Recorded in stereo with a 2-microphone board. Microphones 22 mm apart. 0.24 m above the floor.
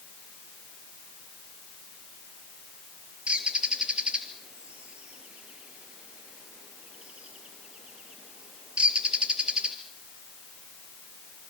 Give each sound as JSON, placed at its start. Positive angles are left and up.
{"t": 3.3, "sound": "a bird", "side_deg": -65, "distance_m": 3.0}